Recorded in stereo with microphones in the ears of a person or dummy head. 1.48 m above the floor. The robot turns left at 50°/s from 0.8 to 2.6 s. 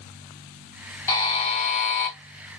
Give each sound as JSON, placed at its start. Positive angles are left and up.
{"t": 1.1, "sound": "a buzzer", "azimuth_deg": 160, "distance_m": 0.5}